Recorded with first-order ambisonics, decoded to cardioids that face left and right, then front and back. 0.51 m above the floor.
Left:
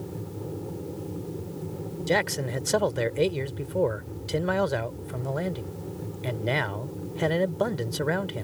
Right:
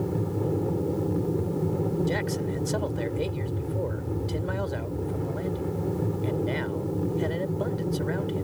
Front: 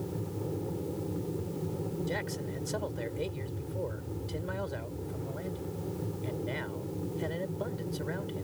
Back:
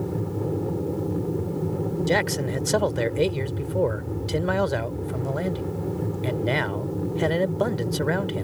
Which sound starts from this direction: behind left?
A man speaking, at 2.1 s.